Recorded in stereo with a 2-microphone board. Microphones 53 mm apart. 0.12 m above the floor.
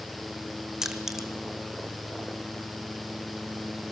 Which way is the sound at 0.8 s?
10° right (ahead or behind).